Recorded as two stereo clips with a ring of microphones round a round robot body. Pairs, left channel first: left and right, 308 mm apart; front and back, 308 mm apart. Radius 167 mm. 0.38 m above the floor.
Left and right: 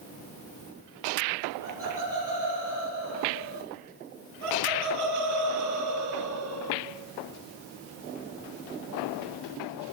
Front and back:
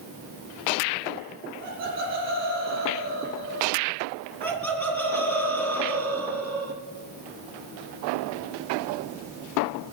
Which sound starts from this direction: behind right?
Laughter, at 1.6 s.